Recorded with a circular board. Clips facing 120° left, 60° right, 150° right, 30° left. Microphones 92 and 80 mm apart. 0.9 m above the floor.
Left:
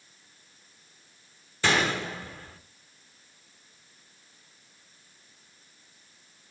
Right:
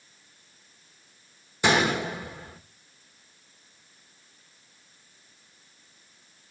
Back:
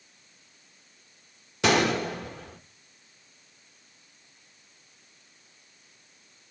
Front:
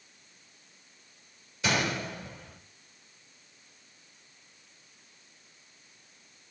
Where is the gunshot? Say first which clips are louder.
Right 3 dB, back 7 dB; 135° right, 1.2 m.